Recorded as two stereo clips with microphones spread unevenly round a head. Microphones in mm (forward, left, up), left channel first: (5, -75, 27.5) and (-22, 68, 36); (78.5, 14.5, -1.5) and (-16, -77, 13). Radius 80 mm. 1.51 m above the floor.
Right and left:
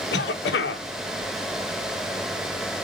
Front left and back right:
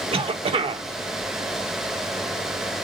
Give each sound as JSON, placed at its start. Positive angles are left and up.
{"t": 0.1, "sound": "a cough", "azimuth_deg": -90, "distance_m": 1.6}